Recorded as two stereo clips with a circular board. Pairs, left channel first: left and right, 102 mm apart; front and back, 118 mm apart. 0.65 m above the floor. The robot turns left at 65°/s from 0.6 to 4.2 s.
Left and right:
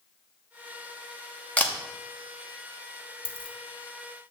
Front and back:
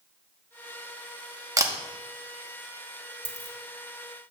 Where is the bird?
I don't hear a bird.